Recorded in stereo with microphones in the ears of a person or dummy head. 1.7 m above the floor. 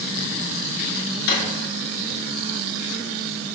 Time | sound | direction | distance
1.3 | a drawer | 60° left (ahead or behind) | 1.9 m